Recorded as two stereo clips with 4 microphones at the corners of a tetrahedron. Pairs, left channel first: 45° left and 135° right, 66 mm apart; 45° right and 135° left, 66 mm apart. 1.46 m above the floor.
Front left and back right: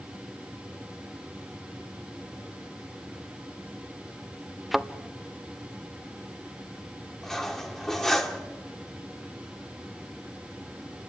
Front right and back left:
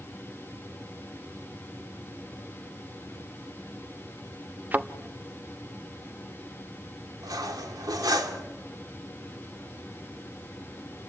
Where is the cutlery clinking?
130° left, 2.5 m.